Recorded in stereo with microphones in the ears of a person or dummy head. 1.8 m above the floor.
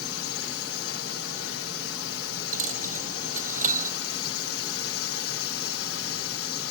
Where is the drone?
65° left (ahead or behind).